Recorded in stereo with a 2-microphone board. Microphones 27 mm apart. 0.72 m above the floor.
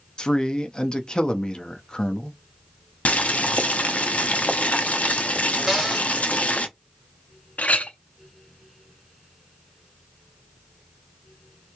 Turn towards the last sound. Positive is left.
turn(degrees=65)  # may be behind; listen again after turning